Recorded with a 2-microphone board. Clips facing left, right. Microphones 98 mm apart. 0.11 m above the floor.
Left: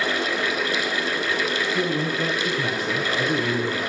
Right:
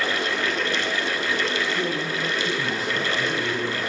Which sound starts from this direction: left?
A man speaking, at 1.7 s.